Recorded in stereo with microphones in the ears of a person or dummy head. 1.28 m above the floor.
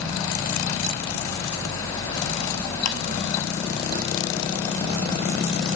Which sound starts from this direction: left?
Ticking, at 2.9 s.